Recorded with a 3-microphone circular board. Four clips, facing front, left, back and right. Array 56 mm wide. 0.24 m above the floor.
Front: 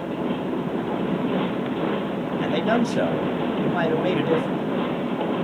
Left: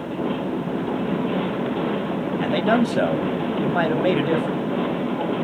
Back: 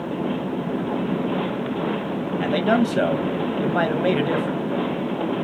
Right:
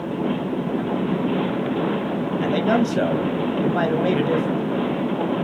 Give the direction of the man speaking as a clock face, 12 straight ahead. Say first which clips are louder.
Even, back 2 dB; 7 o'clock.